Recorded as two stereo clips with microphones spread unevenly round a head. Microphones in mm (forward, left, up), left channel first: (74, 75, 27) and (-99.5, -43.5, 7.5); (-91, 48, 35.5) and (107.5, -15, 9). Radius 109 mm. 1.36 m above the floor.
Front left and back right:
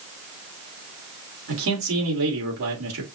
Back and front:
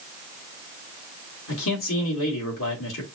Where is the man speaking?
165° right, 3.5 m.